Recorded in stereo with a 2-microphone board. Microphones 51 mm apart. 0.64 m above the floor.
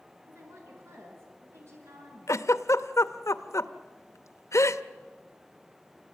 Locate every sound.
0.2 s a woman speaking: 60° right (ahead or behind), 8 m
2.3 s a giggle: 75° left (ahead or behind), 0.8 m